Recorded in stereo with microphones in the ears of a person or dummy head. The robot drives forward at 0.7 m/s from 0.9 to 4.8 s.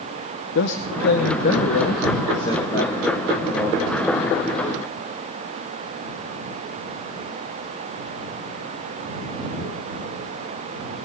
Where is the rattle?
No rattle in this recording.